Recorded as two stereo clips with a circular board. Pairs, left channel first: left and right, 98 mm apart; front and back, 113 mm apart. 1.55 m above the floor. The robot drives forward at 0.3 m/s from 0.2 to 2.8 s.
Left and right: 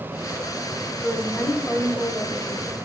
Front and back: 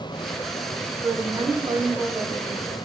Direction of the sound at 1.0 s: 135° left.